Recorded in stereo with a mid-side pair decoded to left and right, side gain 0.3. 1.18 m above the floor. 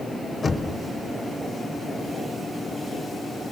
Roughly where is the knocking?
Ahead left.